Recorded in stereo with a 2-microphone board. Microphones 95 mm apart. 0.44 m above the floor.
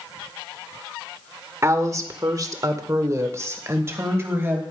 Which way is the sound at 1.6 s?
30° right (ahead or behind).